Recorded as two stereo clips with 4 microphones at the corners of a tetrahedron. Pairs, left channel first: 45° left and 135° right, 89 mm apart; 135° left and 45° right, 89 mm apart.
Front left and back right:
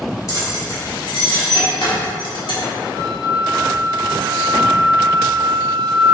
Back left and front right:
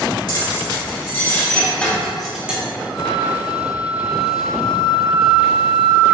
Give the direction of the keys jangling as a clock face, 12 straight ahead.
9 o'clock.